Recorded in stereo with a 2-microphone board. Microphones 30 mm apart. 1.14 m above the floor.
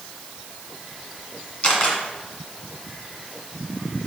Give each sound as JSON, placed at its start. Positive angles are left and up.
{"t": 1.6, "sound": "a camera shutter", "side_deg": 35, "distance_m": 2.0}